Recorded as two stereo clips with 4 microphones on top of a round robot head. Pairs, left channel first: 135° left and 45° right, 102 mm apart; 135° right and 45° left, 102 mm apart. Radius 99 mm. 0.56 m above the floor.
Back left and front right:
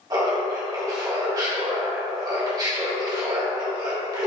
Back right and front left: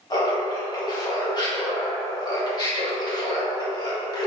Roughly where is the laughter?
Right.